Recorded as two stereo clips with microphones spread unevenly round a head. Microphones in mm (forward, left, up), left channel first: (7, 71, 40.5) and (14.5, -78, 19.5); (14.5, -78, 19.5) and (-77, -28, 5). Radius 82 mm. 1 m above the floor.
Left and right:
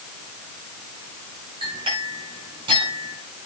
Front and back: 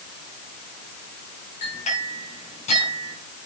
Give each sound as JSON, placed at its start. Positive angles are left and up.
{"t": 1.6, "sound": "a clink", "azimuth_deg": -30, "distance_m": 5.5}